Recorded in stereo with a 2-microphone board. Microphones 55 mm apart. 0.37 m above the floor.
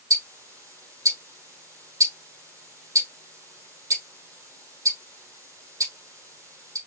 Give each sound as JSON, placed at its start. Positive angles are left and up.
{"t": 0.1, "sound": "ticking", "side_deg": -85, "distance_m": 4.0}